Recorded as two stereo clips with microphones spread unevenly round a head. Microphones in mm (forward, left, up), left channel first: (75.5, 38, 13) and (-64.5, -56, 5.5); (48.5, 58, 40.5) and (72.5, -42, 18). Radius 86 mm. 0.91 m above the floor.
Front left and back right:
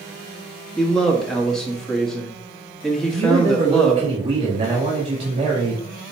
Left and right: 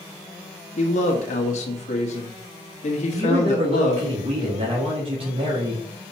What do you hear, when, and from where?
0.8 s a man speaking: 120° left, 1.5 m
3.1 s a man speaking: 90° right, 1.9 m